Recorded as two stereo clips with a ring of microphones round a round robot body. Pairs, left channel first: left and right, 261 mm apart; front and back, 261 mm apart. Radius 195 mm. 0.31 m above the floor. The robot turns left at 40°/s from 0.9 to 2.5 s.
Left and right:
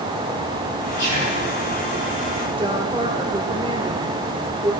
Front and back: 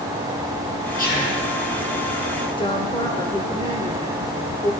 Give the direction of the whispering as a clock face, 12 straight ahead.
10 o'clock.